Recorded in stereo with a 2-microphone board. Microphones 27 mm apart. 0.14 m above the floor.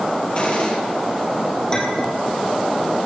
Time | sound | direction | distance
0.3 | a gunshot | 40° left (ahead or behind) | 3.5 m
1.7 | a clink | 20° left (ahead or behind) | 3 m